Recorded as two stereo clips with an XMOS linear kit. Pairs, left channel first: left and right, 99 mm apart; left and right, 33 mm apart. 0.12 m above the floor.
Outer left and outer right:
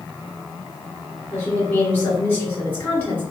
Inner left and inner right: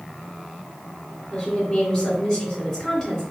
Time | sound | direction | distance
1.3 | a woman speaking | 15° left (ahead or behind) | 1.7 m